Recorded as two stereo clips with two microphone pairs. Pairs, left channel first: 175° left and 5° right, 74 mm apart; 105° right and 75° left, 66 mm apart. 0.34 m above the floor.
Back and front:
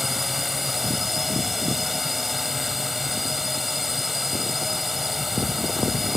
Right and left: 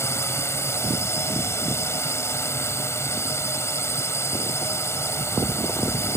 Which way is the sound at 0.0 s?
95° right.